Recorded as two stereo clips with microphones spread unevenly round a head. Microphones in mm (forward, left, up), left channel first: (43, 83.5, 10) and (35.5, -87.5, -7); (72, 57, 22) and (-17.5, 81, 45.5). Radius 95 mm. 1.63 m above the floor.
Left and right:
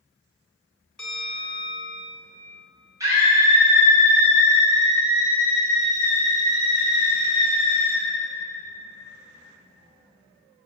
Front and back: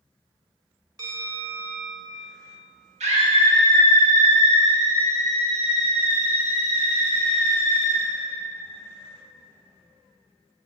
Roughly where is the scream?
Behind.